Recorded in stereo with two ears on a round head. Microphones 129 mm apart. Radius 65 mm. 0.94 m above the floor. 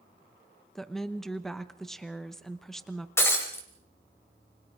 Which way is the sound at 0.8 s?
5° left (ahead or behind).